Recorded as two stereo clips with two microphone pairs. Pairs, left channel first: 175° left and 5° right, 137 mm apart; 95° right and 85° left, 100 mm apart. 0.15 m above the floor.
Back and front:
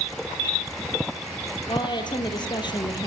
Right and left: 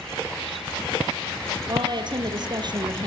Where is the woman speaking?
120° left, 3.5 m.